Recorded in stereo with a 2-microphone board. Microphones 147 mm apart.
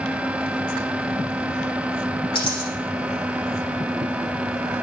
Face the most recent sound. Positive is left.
turn(degrees=35)  # may be behind; listen again after turning